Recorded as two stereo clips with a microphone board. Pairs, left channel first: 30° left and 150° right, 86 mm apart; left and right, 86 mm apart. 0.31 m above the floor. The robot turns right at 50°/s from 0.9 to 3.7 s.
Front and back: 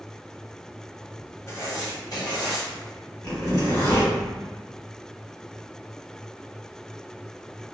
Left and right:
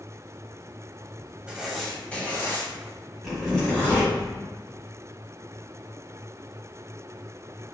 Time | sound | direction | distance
1.5 | writing | 15° right | 0.9 m
3.2 | a zipper | 10° right | 1.8 m